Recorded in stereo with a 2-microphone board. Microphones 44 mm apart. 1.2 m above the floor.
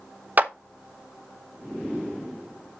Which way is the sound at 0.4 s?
35° right (ahead or behind).